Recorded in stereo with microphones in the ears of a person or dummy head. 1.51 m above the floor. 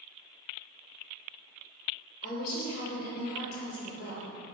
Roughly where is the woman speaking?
Left.